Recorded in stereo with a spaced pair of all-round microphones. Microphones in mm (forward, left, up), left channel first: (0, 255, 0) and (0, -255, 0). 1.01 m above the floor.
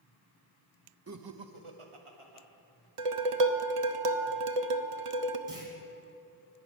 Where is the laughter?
30° right (ahead or behind), 0.5 m; by 2.5 s 85° right, 1.8 m.